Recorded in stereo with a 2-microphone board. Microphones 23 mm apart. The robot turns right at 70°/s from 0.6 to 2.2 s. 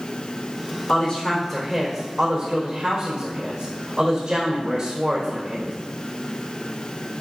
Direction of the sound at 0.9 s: 140° left.